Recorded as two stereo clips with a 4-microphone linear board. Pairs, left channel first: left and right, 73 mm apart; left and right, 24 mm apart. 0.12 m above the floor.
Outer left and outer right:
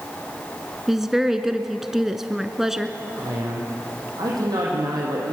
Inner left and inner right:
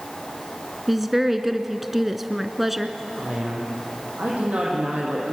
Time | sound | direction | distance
0.9 | a woman speaking | 5° right (ahead or behind) | 1.2 m
3.2 | a man speaking | 65° right (ahead or behind) | 5.5 m